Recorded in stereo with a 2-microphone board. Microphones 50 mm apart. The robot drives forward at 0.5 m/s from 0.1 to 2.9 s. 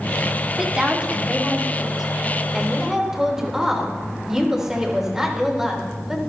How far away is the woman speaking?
About 2.5 m.